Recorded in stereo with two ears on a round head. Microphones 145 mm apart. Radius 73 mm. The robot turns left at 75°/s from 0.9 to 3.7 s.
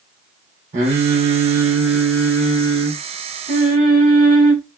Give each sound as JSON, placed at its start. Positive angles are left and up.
{"t": 0.7, "sound": "singing", "azimuth_deg": -100, "distance_m": 1.2}